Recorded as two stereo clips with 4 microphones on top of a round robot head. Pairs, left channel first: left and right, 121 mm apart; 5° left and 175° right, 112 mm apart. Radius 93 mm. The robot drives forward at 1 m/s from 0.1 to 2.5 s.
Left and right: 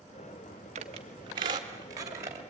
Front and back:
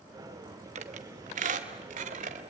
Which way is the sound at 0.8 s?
135° right.